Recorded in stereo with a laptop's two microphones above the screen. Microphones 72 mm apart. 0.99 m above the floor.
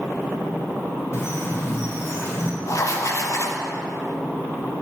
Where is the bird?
50° left (ahead or behind), 2.0 m.